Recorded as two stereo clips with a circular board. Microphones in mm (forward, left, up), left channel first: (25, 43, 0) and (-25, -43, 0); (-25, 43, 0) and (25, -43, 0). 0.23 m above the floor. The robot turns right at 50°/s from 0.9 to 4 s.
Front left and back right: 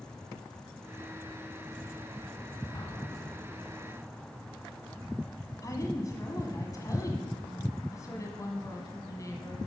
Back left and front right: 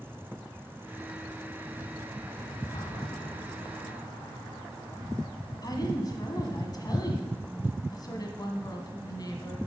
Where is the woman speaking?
95° left, 1.7 m.